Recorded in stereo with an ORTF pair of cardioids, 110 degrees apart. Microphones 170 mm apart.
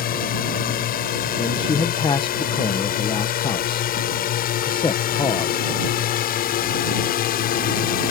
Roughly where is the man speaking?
Ahead left.